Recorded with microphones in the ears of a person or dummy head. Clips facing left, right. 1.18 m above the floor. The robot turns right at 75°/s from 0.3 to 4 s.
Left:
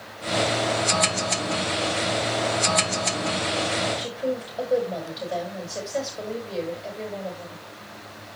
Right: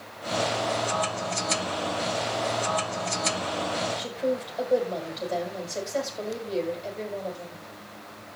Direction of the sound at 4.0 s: Centre (ahead or behind).